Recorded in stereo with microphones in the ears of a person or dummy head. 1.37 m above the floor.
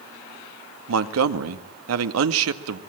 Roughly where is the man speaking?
Right.